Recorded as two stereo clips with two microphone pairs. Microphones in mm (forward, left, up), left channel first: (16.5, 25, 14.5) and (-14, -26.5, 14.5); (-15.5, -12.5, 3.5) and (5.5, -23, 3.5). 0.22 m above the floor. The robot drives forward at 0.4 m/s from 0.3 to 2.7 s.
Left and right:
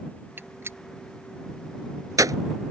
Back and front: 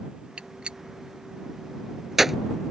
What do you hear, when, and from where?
0.4 s a gunshot: 65° right; by 2.4 s 110° right